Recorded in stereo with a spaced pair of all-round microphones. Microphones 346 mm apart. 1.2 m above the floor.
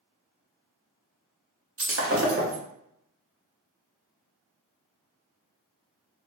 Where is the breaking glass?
40° right (ahead or behind), 0.7 m.